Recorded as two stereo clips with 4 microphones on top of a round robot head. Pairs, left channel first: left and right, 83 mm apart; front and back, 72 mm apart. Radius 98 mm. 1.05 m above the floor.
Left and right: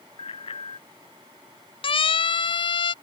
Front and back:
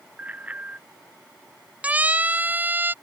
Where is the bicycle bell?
105° left.